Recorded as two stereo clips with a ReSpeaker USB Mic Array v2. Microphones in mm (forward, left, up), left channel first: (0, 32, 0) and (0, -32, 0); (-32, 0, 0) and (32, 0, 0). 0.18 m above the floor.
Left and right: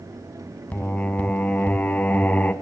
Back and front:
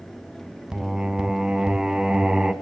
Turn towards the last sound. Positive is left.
turn(degrees=60)